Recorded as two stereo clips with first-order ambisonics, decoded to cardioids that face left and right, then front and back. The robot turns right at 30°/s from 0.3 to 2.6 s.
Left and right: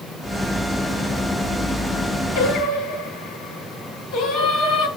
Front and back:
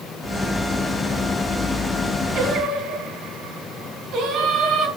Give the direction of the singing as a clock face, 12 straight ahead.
8 o'clock.